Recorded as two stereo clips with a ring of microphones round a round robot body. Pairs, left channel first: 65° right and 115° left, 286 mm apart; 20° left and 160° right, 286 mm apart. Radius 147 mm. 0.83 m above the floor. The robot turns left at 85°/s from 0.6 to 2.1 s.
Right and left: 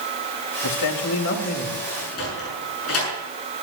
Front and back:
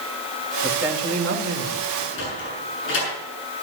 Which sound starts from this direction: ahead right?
A man speaking, at 0.6 s.